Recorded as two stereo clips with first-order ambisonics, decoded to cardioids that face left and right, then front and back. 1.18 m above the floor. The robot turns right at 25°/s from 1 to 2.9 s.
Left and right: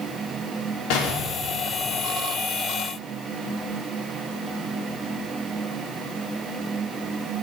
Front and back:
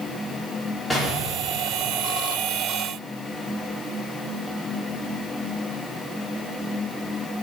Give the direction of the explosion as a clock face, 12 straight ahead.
9 o'clock.